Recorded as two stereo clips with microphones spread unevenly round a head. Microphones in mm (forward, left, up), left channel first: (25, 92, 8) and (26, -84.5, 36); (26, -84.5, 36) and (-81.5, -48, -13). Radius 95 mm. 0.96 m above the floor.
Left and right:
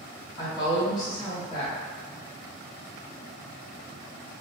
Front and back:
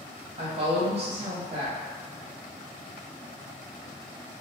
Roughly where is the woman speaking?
Behind left.